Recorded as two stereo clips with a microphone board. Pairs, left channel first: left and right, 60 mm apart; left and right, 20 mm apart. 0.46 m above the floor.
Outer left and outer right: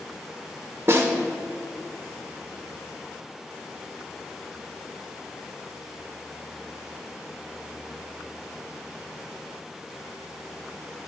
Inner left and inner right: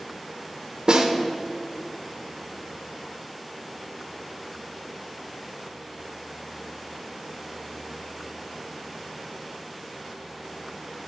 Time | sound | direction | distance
0.9 | a snare drum | 45° right (ahead or behind) | 1.1 m